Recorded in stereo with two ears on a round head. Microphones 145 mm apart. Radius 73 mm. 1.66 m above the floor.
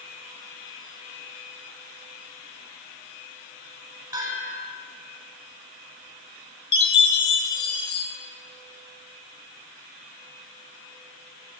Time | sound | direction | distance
4.1 | a bell | 20° right (ahead or behind) | 9 m
6.7 | a chime | 30° left (ahead or behind) | 3.5 m